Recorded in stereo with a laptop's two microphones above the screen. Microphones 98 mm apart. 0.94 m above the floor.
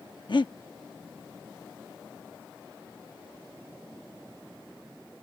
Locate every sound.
0.3 s breathing: 55° left (ahead or behind)